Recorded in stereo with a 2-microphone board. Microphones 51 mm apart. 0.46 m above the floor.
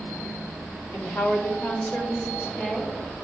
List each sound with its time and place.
0.9 s a woman speaking: 40° left (ahead or behind), 1.7 m; by 2.9 s 15° left (ahead or behind), 1.3 m